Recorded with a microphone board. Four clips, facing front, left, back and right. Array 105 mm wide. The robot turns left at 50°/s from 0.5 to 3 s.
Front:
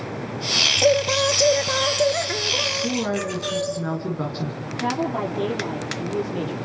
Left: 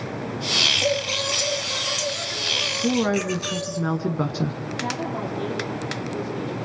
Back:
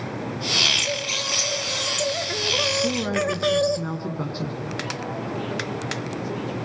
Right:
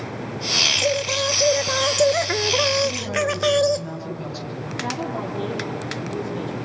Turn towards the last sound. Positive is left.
turn(degrees=-5)